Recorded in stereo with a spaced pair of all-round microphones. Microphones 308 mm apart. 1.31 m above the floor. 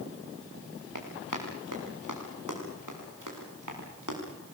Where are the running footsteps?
75° right (ahead or behind), 5.5 m.